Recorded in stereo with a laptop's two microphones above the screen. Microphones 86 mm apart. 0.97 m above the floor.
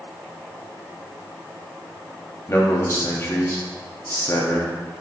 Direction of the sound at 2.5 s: 35° left (ahead or behind).